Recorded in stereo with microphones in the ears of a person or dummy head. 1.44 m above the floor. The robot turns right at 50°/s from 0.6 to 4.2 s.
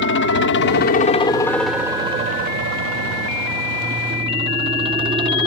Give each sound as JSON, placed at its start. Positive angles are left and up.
{"t": 0.0, "sound": "a helicopter", "side_deg": 60}